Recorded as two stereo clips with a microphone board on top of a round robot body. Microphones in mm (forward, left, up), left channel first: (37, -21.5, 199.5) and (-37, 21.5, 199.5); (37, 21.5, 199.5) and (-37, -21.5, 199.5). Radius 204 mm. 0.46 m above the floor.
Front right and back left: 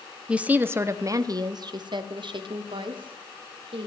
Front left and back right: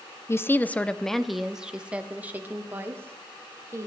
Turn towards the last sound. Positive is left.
turn(degrees=150)